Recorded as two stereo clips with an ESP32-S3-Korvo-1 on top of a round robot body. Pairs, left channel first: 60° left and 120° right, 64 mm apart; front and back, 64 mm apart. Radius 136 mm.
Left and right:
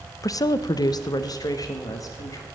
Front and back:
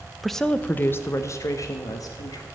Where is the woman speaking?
90° left, 0.6 m; by 2.5 s 25° left, 1.5 m.